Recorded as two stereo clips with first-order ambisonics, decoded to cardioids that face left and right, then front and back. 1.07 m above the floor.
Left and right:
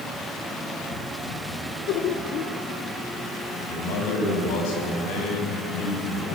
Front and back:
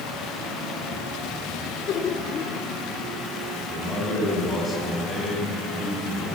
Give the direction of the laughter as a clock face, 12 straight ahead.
10 o'clock.